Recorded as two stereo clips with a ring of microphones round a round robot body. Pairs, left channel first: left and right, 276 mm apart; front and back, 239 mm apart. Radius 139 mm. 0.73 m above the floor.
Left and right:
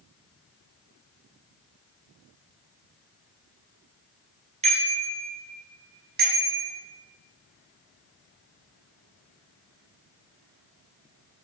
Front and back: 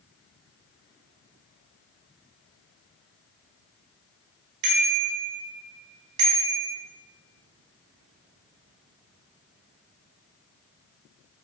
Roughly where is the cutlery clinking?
No cutlery clinking in this recording.